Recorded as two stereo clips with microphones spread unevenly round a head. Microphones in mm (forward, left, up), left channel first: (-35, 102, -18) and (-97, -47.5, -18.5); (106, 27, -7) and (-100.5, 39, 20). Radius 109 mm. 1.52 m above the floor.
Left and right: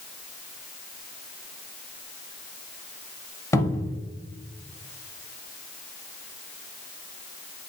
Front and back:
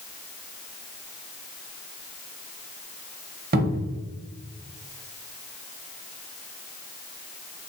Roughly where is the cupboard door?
Behind left.